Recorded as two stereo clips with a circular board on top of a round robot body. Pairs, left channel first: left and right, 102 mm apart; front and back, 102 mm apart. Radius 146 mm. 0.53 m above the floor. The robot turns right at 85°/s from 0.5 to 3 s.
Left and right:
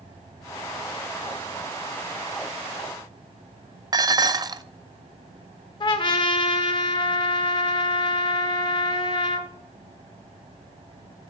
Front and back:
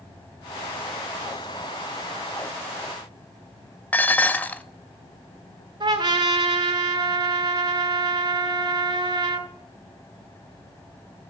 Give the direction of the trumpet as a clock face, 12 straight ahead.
8 o'clock.